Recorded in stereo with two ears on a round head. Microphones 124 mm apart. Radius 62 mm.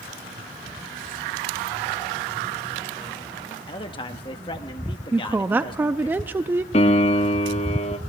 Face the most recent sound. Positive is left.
turn(degrees=45)  # may be behind; listen again after turning